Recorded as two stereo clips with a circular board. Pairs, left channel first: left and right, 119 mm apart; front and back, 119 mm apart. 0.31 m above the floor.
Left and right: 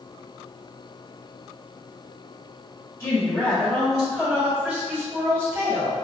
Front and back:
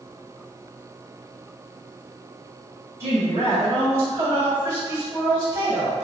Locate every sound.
3.0 s a woman speaking: 130° left, 1.8 m; by 6.0 s 115° right, 1.8 m